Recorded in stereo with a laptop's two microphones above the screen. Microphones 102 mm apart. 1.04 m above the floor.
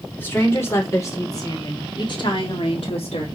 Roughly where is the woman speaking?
Left.